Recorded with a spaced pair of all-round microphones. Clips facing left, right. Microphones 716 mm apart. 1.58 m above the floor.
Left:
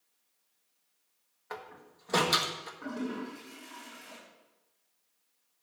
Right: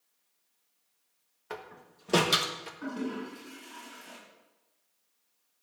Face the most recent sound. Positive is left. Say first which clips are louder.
# right 1 dB
turn(degrees=-25)  # may be behind; listen again after turning